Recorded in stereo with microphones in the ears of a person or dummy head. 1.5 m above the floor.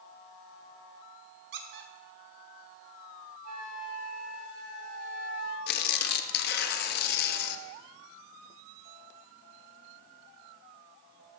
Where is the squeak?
60° right (ahead or behind), 1.0 m.